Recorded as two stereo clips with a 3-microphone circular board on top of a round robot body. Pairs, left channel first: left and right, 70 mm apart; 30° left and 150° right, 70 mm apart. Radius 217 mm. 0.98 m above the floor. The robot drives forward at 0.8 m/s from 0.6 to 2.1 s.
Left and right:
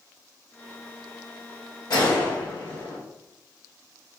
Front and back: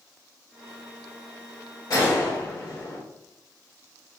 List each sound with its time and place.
1.9 s a gunshot: 65° left, 1.0 m; by 3.0 s 75° left, 1.0 m